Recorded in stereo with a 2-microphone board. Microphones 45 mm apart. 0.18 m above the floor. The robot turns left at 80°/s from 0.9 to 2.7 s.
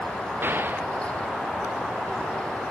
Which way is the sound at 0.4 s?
50° right (ahead or behind).